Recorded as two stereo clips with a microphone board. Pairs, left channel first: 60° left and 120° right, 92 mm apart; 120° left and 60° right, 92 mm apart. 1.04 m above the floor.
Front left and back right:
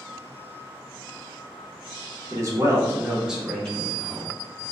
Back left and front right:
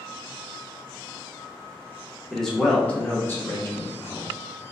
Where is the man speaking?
155° right, 0.9 m; by 4.3 s 100° left, 0.8 m.